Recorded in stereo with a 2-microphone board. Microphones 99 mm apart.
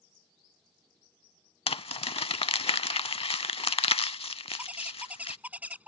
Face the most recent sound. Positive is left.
turn(degrees=-15)  # may be behind; listen again after turning